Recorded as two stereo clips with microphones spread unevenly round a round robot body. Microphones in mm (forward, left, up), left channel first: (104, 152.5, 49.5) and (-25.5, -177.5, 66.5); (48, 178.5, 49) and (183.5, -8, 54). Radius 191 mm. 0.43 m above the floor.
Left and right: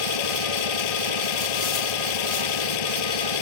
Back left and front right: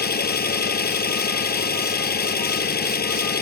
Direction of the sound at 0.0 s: 80° left.